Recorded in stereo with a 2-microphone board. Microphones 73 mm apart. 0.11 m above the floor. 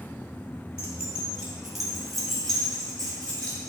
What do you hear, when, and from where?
0.8 s keys jangling: 25° right (ahead or behind), 1.9 m; by 3.7 s 20° left (ahead or behind), 3 m